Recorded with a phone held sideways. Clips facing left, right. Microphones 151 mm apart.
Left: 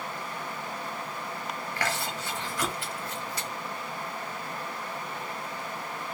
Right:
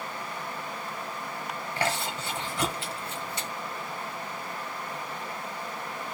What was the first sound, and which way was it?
Chewing, 25° right (ahead or behind).